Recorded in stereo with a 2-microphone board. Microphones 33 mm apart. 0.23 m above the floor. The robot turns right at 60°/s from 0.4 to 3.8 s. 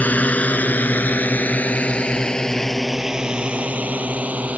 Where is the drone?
60° left (ahead or behind); by 4.6 s 50° right (ahead or behind).